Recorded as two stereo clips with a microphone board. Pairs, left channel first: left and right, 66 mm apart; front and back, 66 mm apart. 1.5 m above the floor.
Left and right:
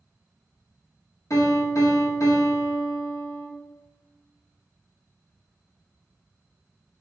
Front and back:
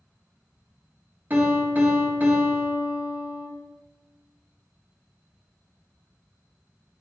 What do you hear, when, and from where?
1.3 s a piano: 120° left, 1.7 m